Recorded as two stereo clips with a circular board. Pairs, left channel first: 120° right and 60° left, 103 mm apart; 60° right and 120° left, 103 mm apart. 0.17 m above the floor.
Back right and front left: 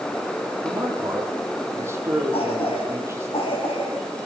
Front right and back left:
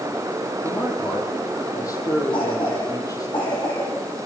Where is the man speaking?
5° right, 5 m.